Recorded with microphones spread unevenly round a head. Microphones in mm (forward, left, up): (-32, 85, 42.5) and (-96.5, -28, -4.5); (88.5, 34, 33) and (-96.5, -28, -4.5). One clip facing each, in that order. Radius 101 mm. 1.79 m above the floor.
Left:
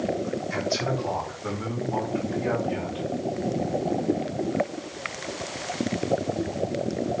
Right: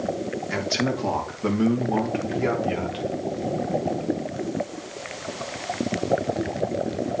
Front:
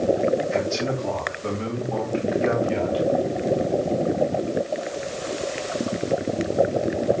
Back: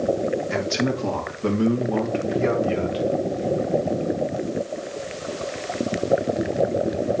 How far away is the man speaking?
About 3 m.